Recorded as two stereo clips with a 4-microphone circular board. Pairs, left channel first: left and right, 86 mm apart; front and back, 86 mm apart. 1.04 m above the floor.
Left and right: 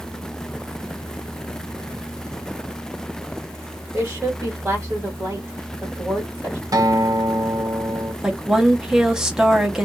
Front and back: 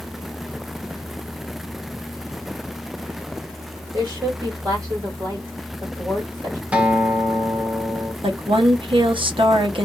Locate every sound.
3.9 s a woman speaking: 145° right, 1.5 m
6.7 s a guitar: 110° right, 0.7 m
8.2 s a woman speaking: 170° right, 0.9 m